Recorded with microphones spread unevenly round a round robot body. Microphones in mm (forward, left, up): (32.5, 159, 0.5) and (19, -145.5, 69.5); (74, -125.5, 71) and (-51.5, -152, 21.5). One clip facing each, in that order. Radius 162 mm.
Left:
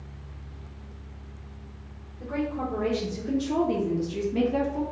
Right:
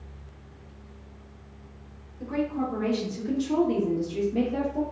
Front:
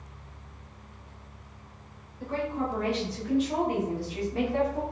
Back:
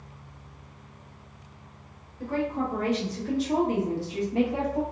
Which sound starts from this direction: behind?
A woman speaking, at 2.2 s.